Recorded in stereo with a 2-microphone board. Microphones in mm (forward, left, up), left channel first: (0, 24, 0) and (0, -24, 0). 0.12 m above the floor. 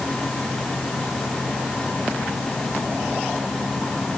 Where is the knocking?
No knocking in this recording.